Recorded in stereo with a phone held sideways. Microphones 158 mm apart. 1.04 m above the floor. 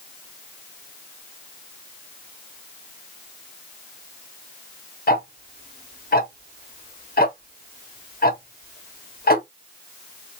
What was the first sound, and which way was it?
Ticking, 70° left (ahead or behind).